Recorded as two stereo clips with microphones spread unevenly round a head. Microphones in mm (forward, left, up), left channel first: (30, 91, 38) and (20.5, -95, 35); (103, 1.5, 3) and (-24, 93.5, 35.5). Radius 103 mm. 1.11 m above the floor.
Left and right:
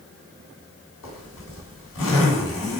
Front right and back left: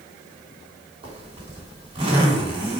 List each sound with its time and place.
1.0 s a zipper: 85° left, 2.5 m